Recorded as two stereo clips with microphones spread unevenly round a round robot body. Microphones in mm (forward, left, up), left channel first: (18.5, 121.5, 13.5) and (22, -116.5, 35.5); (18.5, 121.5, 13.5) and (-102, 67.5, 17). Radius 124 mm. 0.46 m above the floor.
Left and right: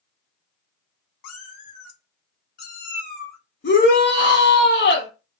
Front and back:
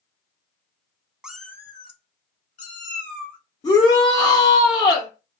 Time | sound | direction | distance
1.2 | a cat meowing | 120° left | 0.6 m
3.6 | a shout | 70° left | 0.9 m